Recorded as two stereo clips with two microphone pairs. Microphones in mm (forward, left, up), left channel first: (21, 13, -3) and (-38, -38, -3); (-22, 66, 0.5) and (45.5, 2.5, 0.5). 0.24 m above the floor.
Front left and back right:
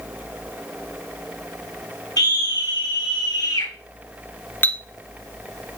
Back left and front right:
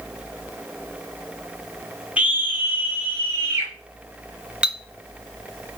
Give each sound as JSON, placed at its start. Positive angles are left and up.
{"t": 2.2, "sound": "a scream", "azimuth_deg": 30, "distance_m": 1.6}
{"t": 4.6, "sound": "a clink", "azimuth_deg": 25, "distance_m": 0.7}